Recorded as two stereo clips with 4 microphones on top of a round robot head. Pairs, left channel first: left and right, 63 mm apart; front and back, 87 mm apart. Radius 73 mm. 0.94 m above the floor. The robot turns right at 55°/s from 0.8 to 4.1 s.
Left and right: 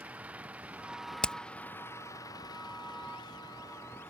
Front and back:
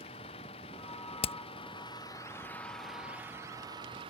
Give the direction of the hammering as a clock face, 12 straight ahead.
12 o'clock.